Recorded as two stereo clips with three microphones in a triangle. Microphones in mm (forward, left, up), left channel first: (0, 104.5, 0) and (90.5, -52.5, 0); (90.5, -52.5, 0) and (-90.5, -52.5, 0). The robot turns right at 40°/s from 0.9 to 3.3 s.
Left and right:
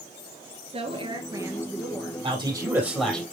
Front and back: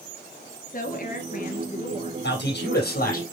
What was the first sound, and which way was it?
A woman speaking, 15° right.